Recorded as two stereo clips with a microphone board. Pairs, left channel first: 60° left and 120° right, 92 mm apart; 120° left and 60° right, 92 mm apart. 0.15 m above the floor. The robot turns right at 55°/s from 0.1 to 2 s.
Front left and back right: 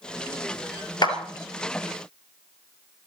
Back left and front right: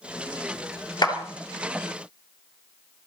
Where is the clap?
85° left, 2.5 m; by 1.1 s 95° left, 2.5 m.